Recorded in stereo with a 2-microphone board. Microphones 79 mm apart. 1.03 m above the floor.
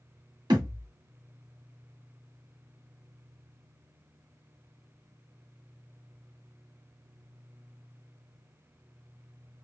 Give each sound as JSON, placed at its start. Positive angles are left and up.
{"t": 0.5, "sound": "a thud", "side_deg": -65, "distance_m": 2.0}